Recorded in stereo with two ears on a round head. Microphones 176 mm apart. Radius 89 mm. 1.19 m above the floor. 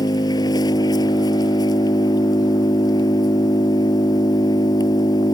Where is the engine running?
20° left (ahead or behind).